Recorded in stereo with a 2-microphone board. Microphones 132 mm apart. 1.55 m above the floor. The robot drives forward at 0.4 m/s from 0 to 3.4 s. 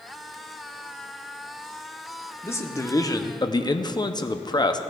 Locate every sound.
2.4 s a man speaking: 20° left (ahead or behind), 0.8 m; by 4.8 s 30° left (ahead or behind), 0.5 m